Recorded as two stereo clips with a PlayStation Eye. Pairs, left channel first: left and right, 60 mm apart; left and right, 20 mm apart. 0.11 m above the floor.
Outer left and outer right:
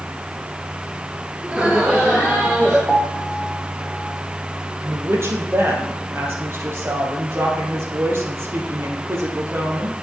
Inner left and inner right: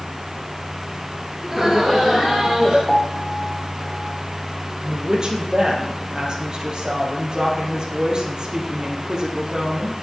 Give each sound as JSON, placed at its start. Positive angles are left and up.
{"t": 1.4, "sound": "laughter", "side_deg": -20, "distance_m": 1.6}
{"t": 2.9, "sound": "a piano", "side_deg": 10, "distance_m": 4.5}
{"t": 4.8, "sound": "a woman speaking", "side_deg": -45, "distance_m": 3.0}